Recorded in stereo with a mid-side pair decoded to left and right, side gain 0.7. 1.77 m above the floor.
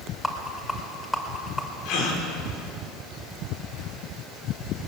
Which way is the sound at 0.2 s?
10° left.